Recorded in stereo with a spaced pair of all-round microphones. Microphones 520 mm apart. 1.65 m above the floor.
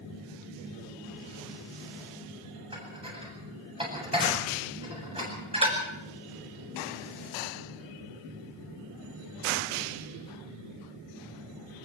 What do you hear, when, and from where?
2.7 s dishes clattering: 10° right (ahead or behind), 8.5 m